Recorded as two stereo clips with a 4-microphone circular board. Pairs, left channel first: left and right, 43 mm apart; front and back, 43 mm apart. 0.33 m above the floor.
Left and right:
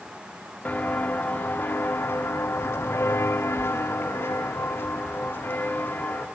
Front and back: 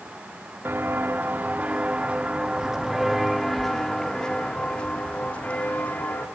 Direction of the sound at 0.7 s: 140° left.